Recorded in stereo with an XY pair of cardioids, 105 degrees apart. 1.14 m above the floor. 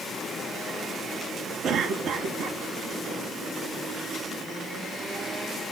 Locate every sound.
1.6 s a cough: 65° right, 1.6 m